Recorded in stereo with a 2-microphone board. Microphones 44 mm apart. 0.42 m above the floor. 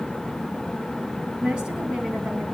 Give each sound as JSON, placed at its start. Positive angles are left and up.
{"t": 1.4, "sound": "a woman speaking", "side_deg": -20, "distance_m": 3.0}